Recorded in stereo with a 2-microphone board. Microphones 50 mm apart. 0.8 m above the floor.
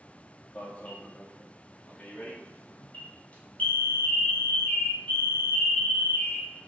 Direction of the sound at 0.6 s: 30° left (ahead or behind).